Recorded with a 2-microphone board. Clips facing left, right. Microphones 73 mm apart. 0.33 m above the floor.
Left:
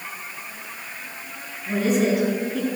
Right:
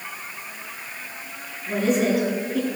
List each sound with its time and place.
1.7 s a woman speaking: centre (ahead or behind), 3.5 m